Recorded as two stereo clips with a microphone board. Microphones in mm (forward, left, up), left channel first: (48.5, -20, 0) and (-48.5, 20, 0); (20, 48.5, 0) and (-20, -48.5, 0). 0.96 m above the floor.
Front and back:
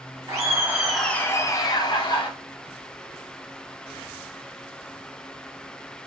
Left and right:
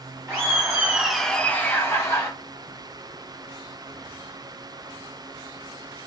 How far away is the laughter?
About 0.7 m.